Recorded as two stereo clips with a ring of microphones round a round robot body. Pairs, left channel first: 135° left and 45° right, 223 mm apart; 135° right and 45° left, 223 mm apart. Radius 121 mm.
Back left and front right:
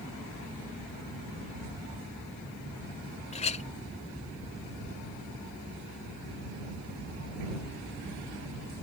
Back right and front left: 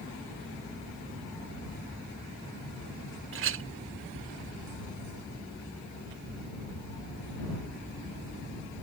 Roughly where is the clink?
Left.